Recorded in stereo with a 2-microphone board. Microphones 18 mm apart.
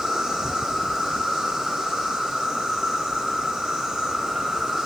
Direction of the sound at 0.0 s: 40° right (ahead or behind).